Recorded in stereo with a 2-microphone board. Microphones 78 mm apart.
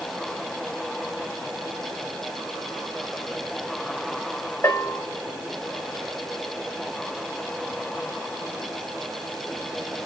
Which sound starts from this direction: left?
A bell, at 4.6 s.